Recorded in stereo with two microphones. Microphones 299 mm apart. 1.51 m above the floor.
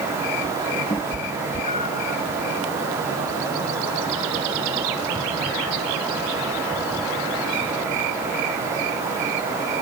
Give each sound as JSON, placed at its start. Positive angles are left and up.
{"t": 0.9, "sound": "a cat meowing", "side_deg": 15}